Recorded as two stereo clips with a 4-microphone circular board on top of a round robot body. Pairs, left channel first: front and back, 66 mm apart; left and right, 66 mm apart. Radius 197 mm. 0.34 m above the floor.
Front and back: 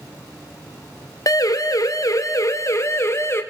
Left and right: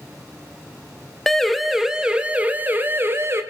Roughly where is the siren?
Ahead.